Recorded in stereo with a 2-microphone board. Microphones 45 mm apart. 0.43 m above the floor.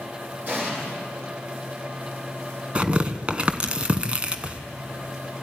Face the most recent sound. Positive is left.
turn(degrees=-25)  # may be behind; listen again after turning